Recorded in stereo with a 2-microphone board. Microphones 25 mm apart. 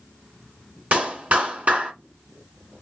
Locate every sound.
0.9 s a clap: 65° right (ahead or behind), 1.9 m